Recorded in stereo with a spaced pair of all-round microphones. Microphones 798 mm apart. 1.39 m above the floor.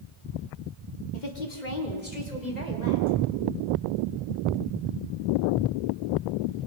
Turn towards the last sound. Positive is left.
turn(degrees=50)  # may be behind; listen again after turning